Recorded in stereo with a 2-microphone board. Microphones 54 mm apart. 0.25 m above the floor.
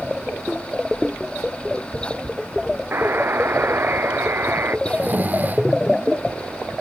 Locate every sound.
2.9 s a buzzer: 45° right (ahead or behind)
4.9 s snoring: 35° right (ahead or behind)